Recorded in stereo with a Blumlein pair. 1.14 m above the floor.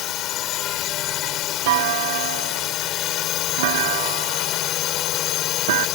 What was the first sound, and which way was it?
A drone, 35° left.